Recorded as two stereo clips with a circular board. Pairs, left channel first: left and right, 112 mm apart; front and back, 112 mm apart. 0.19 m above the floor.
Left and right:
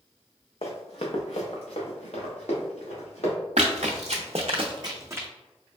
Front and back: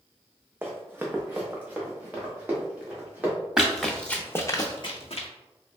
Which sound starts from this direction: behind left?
Running footsteps, at 0.6 s.